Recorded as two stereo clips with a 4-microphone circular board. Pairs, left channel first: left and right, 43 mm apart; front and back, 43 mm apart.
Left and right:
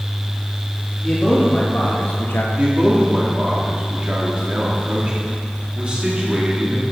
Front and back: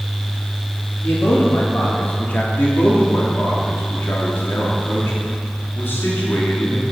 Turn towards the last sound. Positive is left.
turn(degrees=-30)